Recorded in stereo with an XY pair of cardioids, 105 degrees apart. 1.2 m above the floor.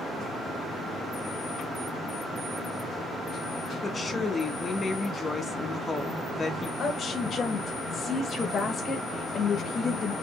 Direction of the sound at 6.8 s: 45° left.